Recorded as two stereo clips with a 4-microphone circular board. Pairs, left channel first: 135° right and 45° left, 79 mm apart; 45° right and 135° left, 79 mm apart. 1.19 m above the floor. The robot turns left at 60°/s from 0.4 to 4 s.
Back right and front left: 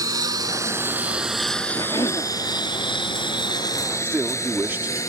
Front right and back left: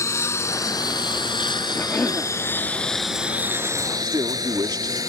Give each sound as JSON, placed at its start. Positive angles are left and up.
{"t": 0.0, "sound": "a lawn mower", "azimuth_deg": 5}
{"t": 1.8, "sound": "a cough", "azimuth_deg": -95}
{"t": 4.0, "sound": "a man speaking", "azimuth_deg": 105}